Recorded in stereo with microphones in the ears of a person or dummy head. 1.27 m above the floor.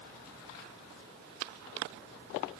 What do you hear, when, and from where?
Only background noise.